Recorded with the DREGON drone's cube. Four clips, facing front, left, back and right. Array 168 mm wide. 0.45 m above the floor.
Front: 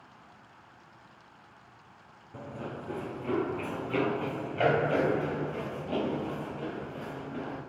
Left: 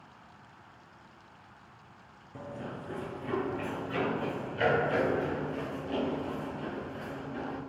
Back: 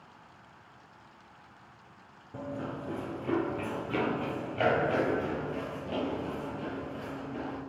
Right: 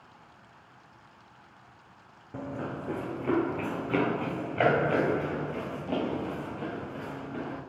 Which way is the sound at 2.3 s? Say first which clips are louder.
Right 5 dB, back 2 dB; 105° right.